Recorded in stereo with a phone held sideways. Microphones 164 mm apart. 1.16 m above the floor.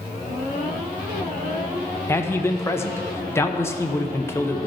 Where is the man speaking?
15° left (ahead or behind), 0.8 m.